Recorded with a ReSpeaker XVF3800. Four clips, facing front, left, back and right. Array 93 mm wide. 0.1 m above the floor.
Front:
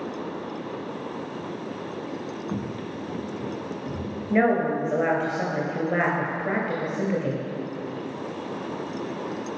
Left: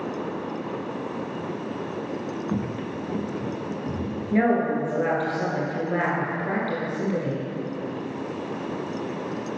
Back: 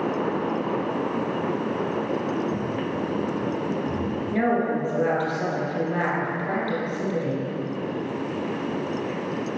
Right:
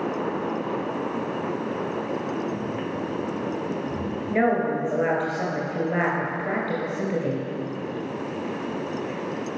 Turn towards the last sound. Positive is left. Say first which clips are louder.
# left 1 dB, front 3 dB
turn(degrees=-25)